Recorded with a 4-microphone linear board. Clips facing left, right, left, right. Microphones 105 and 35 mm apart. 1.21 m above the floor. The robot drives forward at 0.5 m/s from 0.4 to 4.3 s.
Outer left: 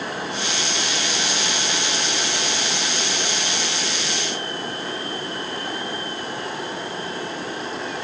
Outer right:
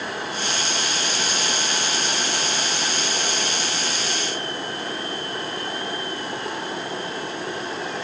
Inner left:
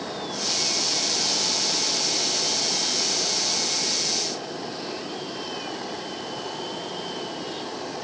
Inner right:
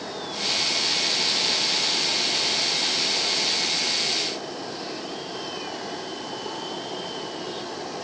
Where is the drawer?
I don't hear a drawer.